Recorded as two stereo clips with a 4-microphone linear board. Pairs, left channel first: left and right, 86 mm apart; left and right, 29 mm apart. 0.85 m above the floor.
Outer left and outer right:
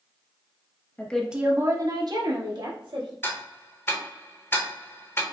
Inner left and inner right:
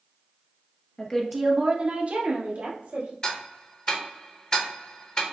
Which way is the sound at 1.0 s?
20° left (ahead or behind).